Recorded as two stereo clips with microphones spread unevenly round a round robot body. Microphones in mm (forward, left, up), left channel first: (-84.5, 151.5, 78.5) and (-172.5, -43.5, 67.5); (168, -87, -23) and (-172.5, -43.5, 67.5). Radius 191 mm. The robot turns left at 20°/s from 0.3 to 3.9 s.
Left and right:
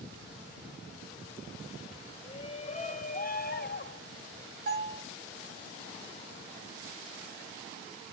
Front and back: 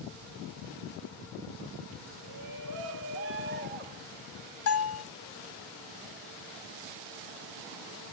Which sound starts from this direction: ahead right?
A bell, at 4.7 s.